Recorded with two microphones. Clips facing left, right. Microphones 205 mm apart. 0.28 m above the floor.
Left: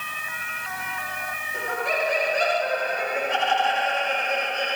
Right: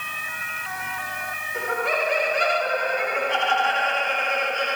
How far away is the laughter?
About 2 m.